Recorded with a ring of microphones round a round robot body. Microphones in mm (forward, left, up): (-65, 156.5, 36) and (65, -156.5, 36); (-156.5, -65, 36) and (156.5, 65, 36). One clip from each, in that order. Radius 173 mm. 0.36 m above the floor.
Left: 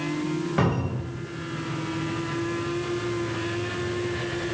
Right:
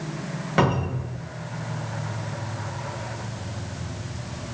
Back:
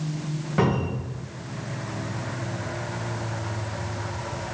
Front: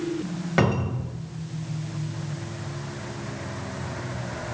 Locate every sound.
0.6 s a cupboard door: 5° right, 2.5 m